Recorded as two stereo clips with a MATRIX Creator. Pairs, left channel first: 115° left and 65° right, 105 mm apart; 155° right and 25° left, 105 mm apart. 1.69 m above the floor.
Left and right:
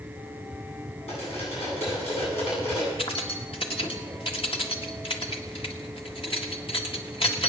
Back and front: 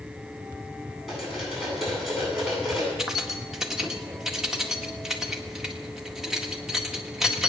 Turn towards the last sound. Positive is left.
turn(degrees=110)